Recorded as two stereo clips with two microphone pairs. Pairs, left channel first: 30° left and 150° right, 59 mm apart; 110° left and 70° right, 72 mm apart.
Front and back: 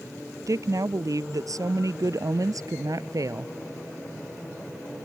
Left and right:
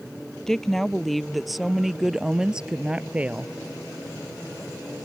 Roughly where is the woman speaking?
Behind.